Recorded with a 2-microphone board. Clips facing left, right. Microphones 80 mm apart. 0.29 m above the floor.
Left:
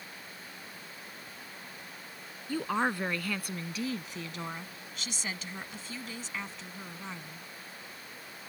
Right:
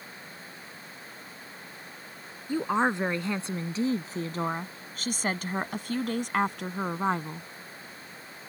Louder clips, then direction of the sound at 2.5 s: Right 4 dB; 15° right (ahead or behind).